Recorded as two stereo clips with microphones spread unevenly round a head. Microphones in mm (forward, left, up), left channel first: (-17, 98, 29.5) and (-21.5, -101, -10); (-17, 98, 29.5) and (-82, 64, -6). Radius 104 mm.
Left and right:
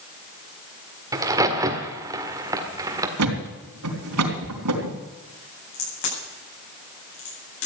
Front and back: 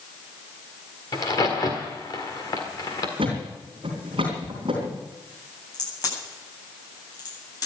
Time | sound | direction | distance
1.1 | a crack | 15° right | 1.6 m
3.2 | a thud | 85° right | 3.5 m
5.7 | a crack | 55° left | 9.5 m